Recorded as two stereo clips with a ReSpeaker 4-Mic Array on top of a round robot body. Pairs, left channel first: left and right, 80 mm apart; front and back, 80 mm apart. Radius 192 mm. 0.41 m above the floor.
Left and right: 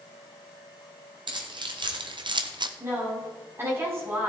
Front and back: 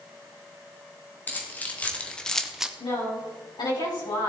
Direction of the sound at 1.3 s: 70° right.